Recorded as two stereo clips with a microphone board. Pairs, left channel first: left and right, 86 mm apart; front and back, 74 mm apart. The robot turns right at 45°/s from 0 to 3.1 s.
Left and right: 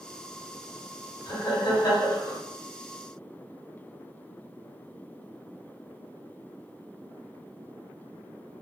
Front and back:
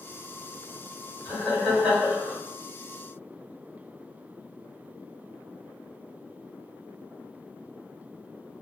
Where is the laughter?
65° left, 1.9 m; by 2.4 s 115° left, 1.9 m.